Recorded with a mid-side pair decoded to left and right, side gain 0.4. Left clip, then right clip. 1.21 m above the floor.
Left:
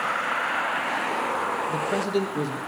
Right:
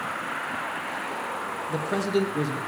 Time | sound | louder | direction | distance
1.7 | a man speaking | left 1 dB | straight ahead | 1.4 m